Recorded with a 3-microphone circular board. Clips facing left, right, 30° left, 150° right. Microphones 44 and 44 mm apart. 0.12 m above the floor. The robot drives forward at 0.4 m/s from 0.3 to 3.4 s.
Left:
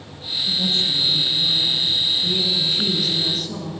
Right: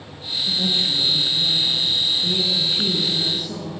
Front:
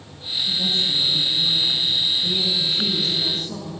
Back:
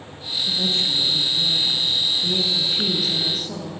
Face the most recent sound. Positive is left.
turn(degrees=-160)